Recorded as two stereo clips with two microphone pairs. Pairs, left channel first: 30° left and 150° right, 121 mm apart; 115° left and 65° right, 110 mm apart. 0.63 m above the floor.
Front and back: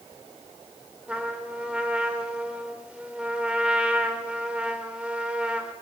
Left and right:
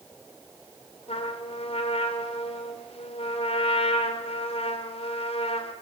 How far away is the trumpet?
About 2.5 m.